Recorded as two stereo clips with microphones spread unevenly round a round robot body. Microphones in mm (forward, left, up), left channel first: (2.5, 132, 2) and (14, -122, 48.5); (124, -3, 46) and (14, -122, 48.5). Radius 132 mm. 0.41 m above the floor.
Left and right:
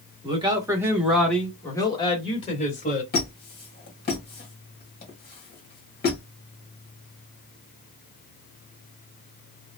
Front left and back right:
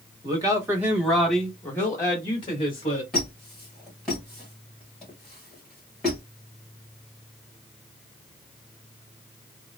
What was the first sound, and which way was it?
A man speaking, 150° right.